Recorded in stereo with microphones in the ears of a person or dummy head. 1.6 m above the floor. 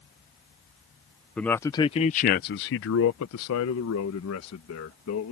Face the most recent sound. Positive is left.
turn(degrees=70)  # may be behind; listen again after turning